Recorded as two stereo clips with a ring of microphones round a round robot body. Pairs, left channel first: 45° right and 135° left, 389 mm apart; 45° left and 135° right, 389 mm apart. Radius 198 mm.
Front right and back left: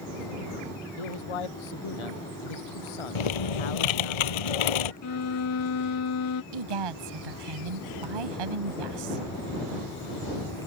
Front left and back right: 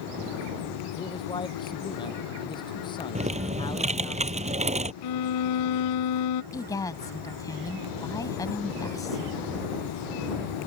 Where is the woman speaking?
125° left.